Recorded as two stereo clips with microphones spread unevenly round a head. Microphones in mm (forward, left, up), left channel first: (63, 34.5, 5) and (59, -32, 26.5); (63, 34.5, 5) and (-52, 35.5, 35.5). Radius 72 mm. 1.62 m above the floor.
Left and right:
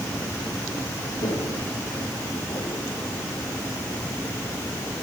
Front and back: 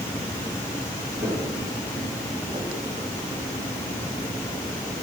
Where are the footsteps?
125° left, 8.5 m; by 2.9 s 130° left, 9 m.